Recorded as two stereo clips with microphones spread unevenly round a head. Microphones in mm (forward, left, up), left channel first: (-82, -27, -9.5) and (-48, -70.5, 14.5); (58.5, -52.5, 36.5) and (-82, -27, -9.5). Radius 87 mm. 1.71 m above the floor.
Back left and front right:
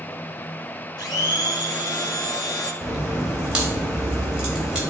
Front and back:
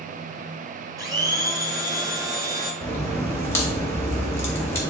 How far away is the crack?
About 1.8 m.